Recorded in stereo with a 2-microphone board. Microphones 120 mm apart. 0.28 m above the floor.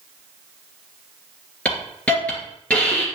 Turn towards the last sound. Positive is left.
turn(degrees=10)  # may be behind; listen again after turning